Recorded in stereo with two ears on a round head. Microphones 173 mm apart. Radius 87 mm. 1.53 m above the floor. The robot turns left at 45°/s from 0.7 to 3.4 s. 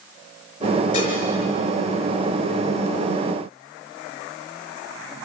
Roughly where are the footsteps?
No footsteps in this recording.